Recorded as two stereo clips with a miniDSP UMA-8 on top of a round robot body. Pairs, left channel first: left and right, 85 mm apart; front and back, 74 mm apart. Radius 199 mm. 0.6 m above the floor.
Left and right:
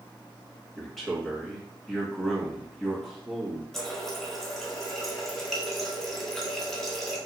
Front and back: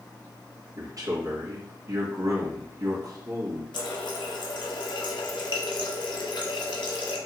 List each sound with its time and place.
0.8 s a man speaking: straight behind, 1.7 m
3.7 s a running tap: 5° left, 0.9 m